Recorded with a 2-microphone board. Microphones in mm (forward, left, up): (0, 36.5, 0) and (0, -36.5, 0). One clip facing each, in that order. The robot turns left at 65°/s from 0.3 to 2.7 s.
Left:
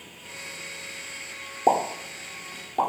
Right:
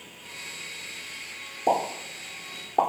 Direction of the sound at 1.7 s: 45° left (ahead or behind).